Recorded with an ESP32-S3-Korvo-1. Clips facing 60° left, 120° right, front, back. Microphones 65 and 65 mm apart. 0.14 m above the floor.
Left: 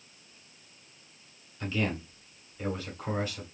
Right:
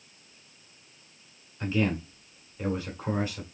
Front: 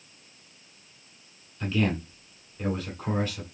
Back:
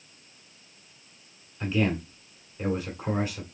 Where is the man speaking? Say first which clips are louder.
Right 4 dB, back 1 dB; 130° right, 1.6 m.